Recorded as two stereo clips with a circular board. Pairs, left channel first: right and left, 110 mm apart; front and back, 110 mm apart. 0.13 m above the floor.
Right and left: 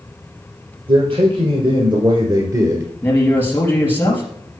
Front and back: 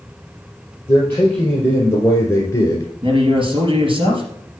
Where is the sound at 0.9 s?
70° left, 3 m; by 2.9 s 45° left, 1.5 m.